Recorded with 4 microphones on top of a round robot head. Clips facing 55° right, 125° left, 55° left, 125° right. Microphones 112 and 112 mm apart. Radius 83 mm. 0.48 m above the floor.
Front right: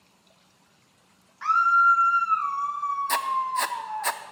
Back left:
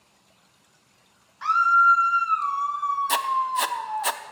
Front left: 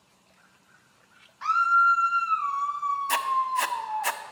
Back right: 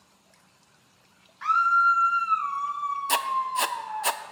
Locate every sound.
1.4 s a scream: 75° left, 1.0 m
3.1 s writing: 165° right, 0.7 m